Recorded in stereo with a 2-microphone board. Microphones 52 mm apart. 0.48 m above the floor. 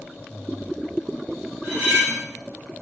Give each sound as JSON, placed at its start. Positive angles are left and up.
{"t": 1.6, "sound": "cutlery clinking", "side_deg": -30, "distance_m": 1.5}